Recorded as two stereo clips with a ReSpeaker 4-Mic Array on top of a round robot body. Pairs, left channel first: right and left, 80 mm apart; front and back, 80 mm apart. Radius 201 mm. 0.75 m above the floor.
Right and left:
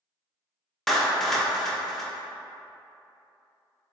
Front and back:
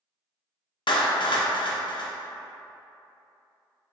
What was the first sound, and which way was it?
A clap, 5° right.